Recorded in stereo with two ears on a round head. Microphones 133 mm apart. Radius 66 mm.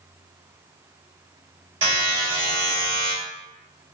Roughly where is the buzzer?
Right.